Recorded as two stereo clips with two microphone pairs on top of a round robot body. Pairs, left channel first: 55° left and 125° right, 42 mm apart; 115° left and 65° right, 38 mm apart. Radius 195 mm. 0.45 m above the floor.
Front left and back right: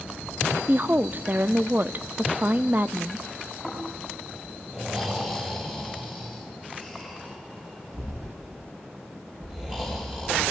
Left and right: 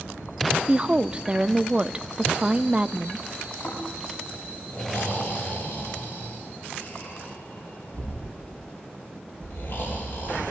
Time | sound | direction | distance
0.7 | a woman speaking | 125° right | 0.9 m
3.6 | snoring | 165° left | 10 m